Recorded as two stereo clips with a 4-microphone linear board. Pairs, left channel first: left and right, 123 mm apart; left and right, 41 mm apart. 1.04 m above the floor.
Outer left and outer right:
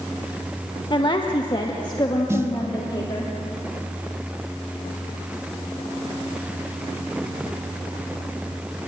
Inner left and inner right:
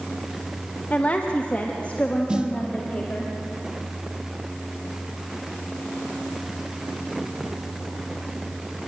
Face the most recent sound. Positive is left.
turn(degrees=-20)  # may be behind; listen again after turning